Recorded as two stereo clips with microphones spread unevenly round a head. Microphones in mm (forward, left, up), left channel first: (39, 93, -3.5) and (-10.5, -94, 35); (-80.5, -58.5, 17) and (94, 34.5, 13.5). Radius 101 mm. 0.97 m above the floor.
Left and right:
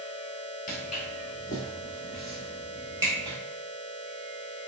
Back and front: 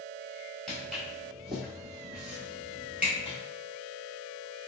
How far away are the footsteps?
About 1.1 m.